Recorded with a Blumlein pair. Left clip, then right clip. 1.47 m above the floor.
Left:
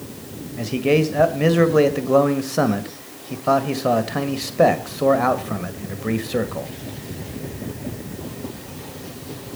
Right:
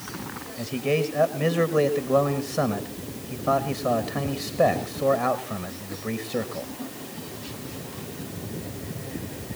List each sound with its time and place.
0.6 s a man speaking: 20° left, 1.8 m